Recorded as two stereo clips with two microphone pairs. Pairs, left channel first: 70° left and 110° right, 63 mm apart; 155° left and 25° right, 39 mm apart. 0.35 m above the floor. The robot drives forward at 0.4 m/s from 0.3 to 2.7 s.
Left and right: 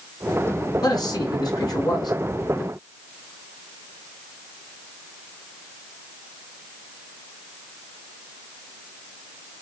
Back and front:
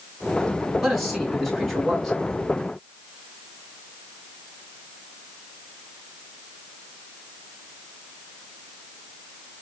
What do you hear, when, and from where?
0.8 s a man speaking: 60° left, 3.5 m; by 2.1 s 70° left, 3 m